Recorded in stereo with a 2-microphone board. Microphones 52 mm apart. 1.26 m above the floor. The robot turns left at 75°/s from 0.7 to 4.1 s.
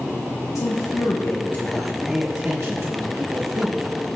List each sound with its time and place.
0.6 s a man speaking: 90° left, 1.1 m; by 3.9 s 150° right, 1.1 m